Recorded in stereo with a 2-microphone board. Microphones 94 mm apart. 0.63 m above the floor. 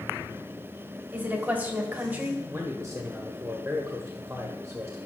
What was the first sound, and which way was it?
A woman speaking, 20° right (ahead or behind).